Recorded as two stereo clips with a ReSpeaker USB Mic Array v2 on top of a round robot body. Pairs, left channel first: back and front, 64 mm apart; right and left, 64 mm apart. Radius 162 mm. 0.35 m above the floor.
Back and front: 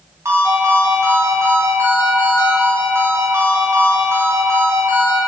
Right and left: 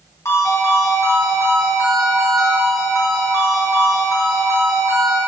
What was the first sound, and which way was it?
A ringtone, 45° right.